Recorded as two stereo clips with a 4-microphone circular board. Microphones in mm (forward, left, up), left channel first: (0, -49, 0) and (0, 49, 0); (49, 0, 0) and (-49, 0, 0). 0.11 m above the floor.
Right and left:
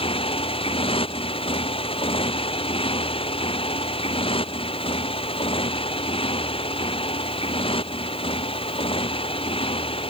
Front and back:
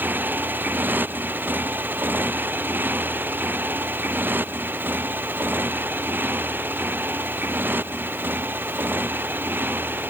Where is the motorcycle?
110° right.